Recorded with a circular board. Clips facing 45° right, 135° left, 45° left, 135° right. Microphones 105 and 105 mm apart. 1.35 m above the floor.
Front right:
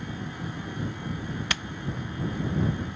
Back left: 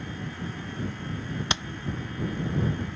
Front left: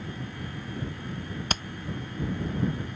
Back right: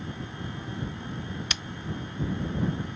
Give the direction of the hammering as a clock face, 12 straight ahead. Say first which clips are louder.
Back left 4 dB, front left 5 dB; 10 o'clock.